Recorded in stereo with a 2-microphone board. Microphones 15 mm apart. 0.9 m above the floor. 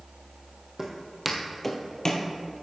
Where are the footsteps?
30° right (ahead or behind), 1.6 m; by 2.3 s 40° left (ahead or behind), 1.3 m.